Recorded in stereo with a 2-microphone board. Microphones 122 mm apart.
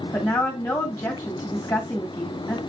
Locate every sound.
0.1 s a woman speaking: 20° left (ahead or behind), 1.5 m